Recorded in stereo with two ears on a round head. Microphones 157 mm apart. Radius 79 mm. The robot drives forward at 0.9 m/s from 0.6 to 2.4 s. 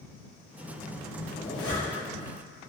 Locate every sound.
1.4 s a zipper: 35° left (ahead or behind), 0.5 m; by 2.1 s 15° left (ahead or behind), 1.1 m